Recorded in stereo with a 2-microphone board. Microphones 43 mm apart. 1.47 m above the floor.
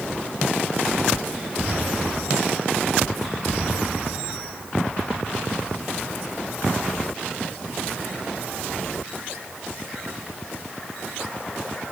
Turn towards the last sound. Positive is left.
No sound to turn to.